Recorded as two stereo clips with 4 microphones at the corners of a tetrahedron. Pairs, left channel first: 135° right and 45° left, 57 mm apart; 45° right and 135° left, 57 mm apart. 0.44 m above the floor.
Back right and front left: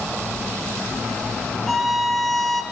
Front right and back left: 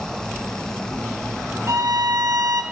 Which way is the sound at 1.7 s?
135° left.